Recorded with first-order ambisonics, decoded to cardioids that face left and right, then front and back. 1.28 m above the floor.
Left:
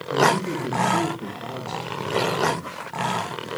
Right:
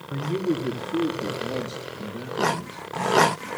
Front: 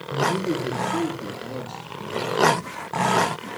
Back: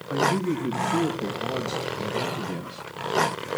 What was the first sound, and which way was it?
A man speaking, 165° left.